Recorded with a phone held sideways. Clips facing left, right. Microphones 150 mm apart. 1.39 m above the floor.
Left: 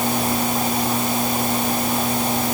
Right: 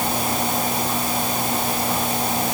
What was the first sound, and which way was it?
Only background noise.